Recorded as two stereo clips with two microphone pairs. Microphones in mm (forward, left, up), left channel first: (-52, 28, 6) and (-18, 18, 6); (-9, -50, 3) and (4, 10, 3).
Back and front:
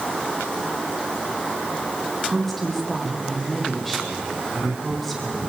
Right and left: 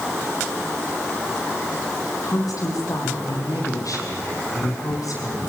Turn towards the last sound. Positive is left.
turn(degrees=-110)